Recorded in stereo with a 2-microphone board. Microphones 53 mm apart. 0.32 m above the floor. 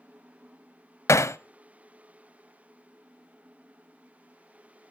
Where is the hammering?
65° left (ahead or behind), 0.5 m.